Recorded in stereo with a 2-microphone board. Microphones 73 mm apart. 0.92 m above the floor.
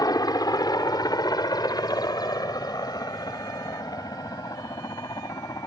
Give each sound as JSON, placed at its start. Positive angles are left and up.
{"t": 0.0, "sound": "a helicopter", "side_deg": 65}